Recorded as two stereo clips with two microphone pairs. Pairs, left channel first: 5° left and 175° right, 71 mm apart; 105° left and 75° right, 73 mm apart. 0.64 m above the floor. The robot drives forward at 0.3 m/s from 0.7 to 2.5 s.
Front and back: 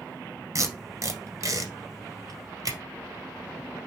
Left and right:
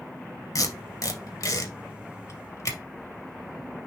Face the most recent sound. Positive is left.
turn(degrees=150)